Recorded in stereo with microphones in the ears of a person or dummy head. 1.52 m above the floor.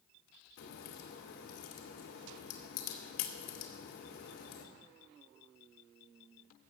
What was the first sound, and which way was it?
A crack, 65° left (ahead or behind).